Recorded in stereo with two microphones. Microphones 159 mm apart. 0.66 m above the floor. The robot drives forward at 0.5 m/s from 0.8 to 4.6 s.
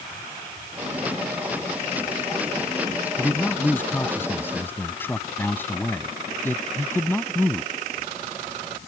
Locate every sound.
3.2 s a man speaking: 10° left (ahead or behind); by 7.7 s 15° left (ahead or behind)